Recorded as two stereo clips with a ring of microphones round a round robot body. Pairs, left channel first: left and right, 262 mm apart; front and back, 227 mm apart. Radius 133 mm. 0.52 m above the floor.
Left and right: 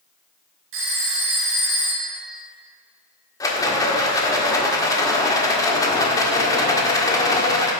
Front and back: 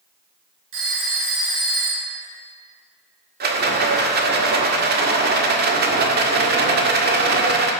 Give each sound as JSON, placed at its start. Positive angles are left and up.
{"t": 0.7, "sound": "a phone ringing", "azimuth_deg": -135, "distance_m": 5.5}
{"t": 3.4, "sound": "a rattle", "azimuth_deg": 160, "distance_m": 1.7}